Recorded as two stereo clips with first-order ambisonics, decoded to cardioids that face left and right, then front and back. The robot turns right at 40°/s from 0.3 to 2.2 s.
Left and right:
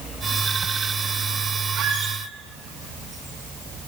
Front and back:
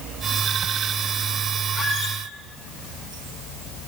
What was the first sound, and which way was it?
A squeak, 65° right.